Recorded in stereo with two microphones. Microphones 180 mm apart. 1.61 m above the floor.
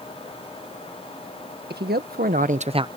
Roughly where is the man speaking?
Right.